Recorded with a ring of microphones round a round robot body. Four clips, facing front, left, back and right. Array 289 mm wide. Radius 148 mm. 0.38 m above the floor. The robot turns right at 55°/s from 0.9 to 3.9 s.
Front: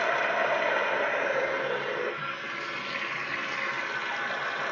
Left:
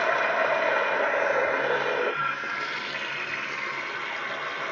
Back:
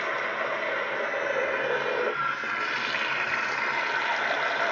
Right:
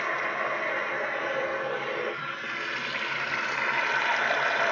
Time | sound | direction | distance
0.0 | running water | 70° left | 1.1 m